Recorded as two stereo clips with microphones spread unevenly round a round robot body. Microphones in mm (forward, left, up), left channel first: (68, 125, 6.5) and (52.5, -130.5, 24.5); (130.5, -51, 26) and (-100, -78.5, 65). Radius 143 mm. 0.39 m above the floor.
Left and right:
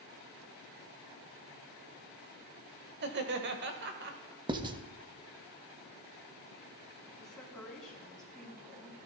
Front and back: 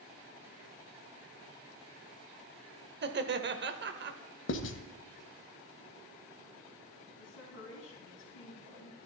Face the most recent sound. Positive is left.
turn(degrees=0)